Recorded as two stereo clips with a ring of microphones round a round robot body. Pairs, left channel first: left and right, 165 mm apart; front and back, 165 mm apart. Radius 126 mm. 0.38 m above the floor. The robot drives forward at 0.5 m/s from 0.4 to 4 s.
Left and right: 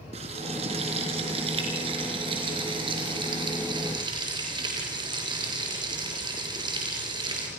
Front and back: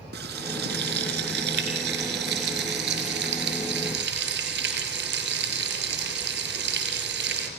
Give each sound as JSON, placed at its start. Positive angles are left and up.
{"t": 0.1, "sound": "frying", "azimuth_deg": -150, "distance_m": 4.0}